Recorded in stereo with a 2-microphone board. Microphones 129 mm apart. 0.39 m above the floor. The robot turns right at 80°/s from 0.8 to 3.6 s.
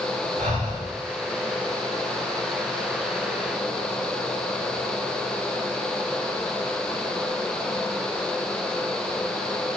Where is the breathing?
75° right (ahead or behind), 1.3 m; by 0.9 s 70° right (ahead or behind), 1.3 m.